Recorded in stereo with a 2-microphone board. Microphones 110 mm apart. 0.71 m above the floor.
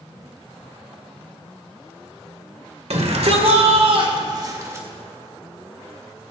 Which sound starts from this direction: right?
A shout, at 2.9 s.